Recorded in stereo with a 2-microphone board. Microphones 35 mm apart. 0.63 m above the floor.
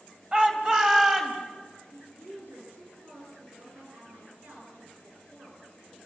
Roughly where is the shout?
Right.